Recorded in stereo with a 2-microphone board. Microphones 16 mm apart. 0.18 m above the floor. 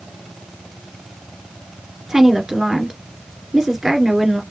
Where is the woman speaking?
35° right (ahead or behind), 2 m.